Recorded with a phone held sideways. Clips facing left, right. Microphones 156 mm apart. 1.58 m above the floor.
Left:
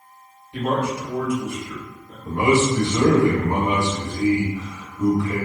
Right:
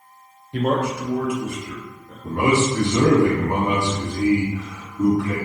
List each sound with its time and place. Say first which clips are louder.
0.5 s a man speaking: right 2 dB; 55° right (ahead or behind), 0.7 m; by 2.1 s 70° right (ahead or behind), 1.7 m
2.2 s a man speaking: left 1 dB; 65° right (ahead or behind), 1.3 m